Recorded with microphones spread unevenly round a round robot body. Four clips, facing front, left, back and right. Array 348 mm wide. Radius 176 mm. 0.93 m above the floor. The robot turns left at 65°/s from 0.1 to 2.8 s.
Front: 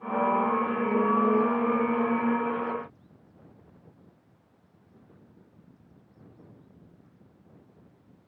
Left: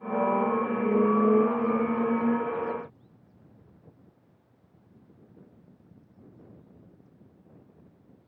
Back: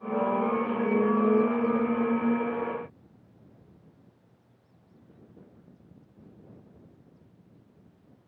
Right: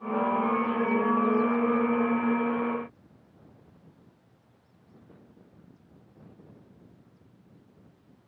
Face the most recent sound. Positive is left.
No sound to turn to.